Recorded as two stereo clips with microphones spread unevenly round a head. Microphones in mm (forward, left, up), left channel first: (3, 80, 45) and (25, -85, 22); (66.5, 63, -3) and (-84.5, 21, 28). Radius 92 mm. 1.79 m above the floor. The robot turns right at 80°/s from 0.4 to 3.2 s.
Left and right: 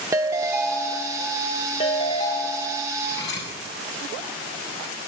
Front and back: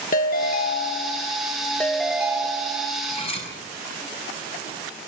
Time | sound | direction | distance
0.1 | a ringtone | 5° right | 1.1 m
3.0 | cutlery clinking | 55° left | 7.5 m